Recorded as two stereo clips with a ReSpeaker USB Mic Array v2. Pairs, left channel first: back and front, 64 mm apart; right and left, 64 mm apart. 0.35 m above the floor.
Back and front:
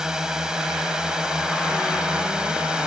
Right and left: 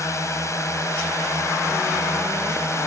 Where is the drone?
75° right; by 2.9 s 70° right.